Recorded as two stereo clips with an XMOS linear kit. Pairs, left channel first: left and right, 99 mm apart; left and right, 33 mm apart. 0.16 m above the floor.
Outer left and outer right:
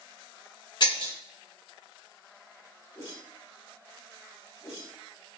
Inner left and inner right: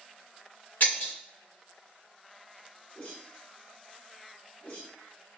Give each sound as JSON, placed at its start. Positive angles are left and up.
{"t": 0.8, "sound": "breaking glass", "side_deg": 50, "distance_m": 1.1}
{"t": 3.0, "sound": "a whoosh", "side_deg": 30, "distance_m": 1.3}